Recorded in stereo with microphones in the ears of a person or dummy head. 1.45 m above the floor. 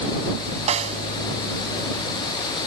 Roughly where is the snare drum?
Right.